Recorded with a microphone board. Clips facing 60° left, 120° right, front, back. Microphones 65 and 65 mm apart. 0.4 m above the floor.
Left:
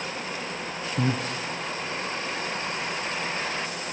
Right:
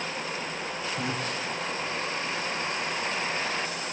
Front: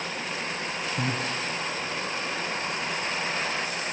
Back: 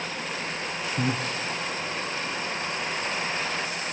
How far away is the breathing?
About 4 m.